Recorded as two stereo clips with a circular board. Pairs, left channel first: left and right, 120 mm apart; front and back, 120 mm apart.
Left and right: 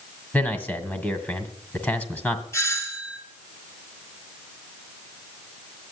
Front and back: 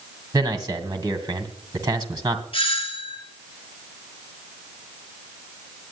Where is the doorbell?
30° left, 3.5 m.